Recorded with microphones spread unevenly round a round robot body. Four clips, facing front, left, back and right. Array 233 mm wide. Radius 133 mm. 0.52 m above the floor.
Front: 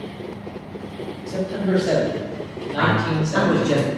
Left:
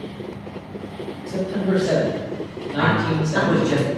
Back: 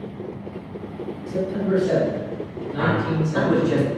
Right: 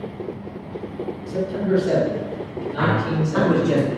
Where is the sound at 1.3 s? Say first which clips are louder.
Even, even; 15° left, 1.3 m.